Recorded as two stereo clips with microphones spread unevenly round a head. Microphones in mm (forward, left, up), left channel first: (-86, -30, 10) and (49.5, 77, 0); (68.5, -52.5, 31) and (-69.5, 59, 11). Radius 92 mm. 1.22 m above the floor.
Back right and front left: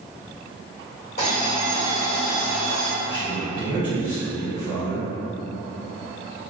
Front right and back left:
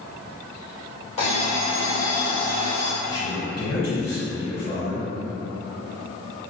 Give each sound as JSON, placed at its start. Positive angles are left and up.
{"t": 1.2, "sound": "an alarm clock", "azimuth_deg": -90, "distance_m": 1.7}
{"t": 3.0, "sound": "a man speaking", "azimuth_deg": -75, "distance_m": 2.0}